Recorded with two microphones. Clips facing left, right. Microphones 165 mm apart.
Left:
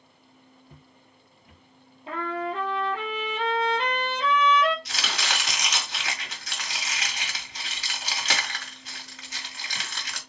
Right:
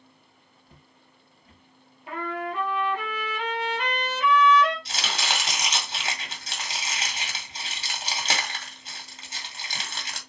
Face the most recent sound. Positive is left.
turn(degrees=-30)  # may be behind; listen again after turning